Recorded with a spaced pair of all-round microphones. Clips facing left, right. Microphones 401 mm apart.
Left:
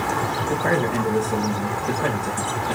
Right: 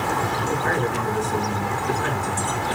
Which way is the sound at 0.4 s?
75° left (ahead or behind).